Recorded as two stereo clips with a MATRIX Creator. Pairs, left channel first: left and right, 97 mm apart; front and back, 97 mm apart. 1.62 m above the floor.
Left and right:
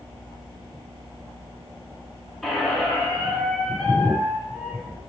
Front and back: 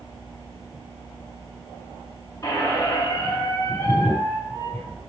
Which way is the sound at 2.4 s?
5° left.